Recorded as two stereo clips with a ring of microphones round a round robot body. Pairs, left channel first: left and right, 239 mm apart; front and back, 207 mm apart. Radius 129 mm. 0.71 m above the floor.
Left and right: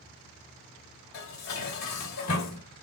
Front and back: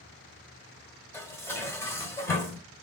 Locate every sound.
1.1 s dishes clattering: 80° left, 1.7 m